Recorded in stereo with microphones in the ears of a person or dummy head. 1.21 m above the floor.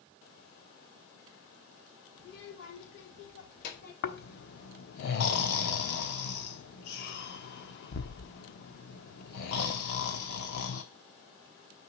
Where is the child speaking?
75° left (ahead or behind), 2 m; by 3.9 s 55° left (ahead or behind), 3 m.